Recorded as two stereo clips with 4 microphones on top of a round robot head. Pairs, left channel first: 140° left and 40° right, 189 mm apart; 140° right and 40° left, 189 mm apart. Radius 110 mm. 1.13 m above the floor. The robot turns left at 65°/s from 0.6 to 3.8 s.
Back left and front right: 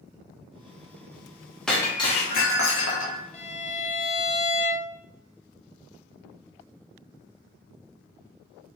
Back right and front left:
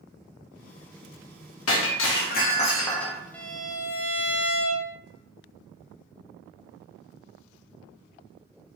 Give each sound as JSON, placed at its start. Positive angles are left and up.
{"t": 1.7, "sound": "breaking glass", "azimuth_deg": -135, "distance_m": 0.7}
{"t": 3.3, "sound": "a violin", "azimuth_deg": 145, "distance_m": 0.7}